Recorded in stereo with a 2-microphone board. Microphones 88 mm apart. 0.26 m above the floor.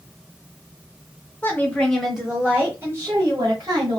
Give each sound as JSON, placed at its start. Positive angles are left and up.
{"t": 1.4, "sound": "a woman speaking", "side_deg": 20, "distance_m": 1.1}